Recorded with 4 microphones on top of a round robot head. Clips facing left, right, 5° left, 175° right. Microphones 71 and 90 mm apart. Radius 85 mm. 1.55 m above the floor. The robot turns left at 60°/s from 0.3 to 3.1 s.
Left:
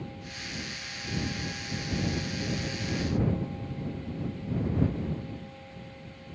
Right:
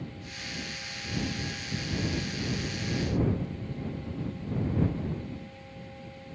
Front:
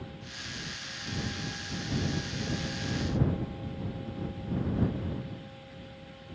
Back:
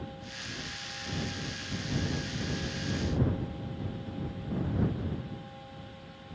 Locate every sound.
Only background noise.